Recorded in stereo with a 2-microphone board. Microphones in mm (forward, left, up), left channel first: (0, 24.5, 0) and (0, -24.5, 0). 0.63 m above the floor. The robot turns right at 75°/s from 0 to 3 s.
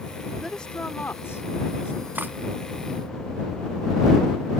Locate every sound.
0.4 s a woman speaking: 5° left; by 2.0 s 130° left
2.1 s cutlery clinking: 45° right (ahead or behind); by 2.4 s 40° right (ahead or behind)